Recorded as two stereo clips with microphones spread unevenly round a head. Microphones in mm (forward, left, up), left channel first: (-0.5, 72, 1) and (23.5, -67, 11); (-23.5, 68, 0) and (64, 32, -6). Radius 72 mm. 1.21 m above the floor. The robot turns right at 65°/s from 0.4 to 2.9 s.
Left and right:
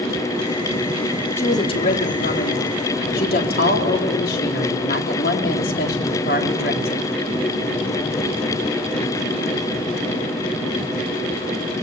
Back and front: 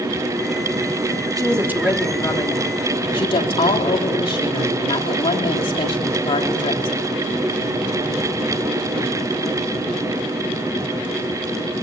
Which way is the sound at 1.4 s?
25° left.